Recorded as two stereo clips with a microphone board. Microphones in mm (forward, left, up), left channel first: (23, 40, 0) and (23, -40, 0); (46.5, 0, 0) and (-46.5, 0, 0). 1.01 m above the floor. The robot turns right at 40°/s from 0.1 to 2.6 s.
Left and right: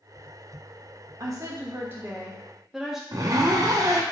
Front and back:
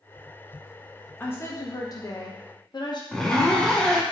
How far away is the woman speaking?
About 1.1 m.